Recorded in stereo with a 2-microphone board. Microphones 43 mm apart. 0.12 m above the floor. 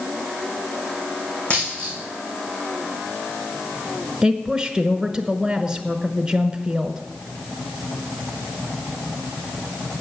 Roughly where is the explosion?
I don't hear an explosion.